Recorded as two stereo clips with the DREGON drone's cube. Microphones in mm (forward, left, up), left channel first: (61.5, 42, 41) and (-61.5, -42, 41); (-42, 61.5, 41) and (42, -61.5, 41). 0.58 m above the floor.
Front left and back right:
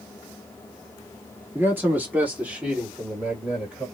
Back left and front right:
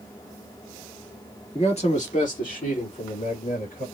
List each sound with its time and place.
1.6 s a man speaking: 145° left, 1.3 m; by 3.9 s 130° left, 3 m